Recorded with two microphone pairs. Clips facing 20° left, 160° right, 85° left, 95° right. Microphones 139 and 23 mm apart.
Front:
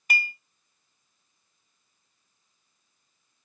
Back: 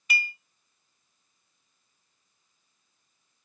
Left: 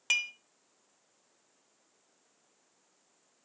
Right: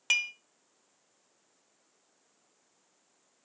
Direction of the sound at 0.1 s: 20° right.